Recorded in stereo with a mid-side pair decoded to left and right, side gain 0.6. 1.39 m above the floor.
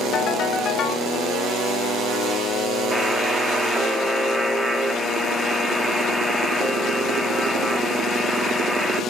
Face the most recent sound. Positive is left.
turn(degrees=-5)